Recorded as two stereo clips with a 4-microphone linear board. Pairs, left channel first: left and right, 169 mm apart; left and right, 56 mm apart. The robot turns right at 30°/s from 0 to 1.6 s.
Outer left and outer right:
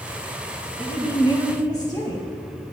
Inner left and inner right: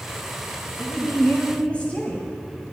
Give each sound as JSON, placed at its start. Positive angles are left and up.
{"t": 0.8, "sound": "a woman speaking", "side_deg": 35, "distance_m": 1.3}